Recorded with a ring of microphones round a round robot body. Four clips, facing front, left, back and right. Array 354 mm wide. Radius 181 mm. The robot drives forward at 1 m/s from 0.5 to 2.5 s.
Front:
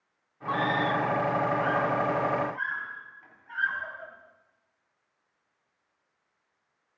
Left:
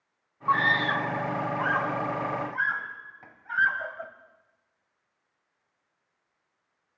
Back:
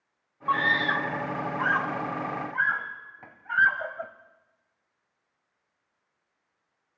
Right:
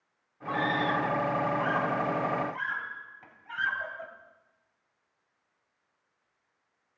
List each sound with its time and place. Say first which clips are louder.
0.5 s a scream: left 3 dB, back 1 dB; 120° left, 1.0 m; by 4.1 s 165° left, 2.5 m